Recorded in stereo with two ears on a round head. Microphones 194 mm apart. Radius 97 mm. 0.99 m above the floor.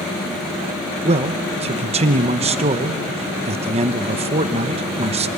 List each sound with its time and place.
1.0 s a man speaking: 30° right (ahead or behind), 1.0 m